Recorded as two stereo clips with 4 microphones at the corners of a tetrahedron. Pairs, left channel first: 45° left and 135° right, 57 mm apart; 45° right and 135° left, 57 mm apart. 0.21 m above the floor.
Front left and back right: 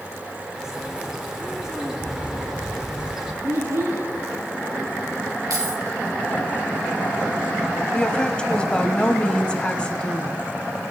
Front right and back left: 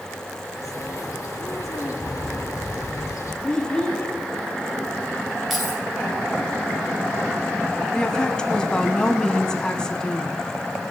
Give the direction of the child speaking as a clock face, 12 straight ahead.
4 o'clock.